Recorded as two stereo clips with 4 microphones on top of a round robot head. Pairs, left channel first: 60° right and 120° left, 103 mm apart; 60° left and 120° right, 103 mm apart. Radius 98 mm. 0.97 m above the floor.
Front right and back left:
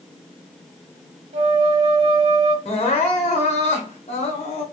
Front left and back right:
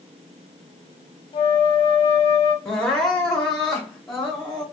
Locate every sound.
1.3 s a flute: 100° left, 0.8 m
2.6 s crying: 30° right, 0.7 m